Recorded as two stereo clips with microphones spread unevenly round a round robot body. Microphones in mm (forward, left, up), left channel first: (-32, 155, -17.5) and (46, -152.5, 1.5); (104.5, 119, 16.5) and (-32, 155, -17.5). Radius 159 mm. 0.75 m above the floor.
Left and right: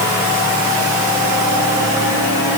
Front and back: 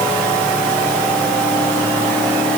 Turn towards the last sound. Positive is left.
No sound to turn to.